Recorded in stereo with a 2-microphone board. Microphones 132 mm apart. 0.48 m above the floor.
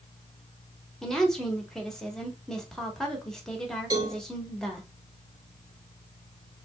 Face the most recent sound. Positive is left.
turn(degrees=-35)  # may be behind; listen again after turning